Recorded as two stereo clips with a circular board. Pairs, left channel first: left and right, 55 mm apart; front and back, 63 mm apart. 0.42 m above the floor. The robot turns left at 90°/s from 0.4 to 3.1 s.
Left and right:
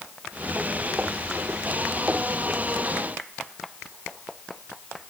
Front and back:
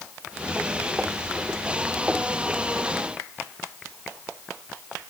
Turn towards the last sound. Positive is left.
No sound to turn to.